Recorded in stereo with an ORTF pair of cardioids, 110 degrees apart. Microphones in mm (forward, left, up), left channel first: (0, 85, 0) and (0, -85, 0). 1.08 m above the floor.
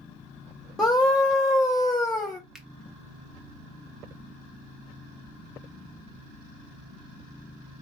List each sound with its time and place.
0.8 s a scream: straight ahead, 0.7 m
2.5 s a finger snap: straight ahead, 0.8 m